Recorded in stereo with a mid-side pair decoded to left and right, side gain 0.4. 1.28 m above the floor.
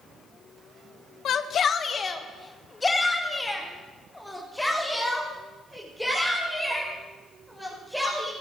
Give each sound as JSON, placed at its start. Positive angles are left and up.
{"t": 1.2, "sound": "a shout", "azimuth_deg": 70, "distance_m": 1.3}